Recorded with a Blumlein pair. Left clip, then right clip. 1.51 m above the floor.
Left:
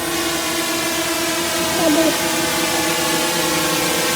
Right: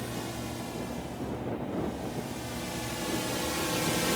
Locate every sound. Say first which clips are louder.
0.0 s a drone: left 17 dB; 40° left; by 4.2 s 60° left
1.6 s a child speaking: left 19 dB; 45° left